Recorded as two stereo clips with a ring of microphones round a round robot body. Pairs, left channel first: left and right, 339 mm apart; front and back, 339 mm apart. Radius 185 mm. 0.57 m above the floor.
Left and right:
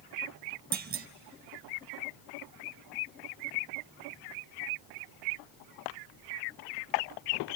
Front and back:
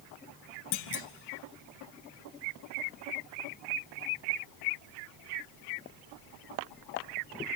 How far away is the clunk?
About 0.5 m.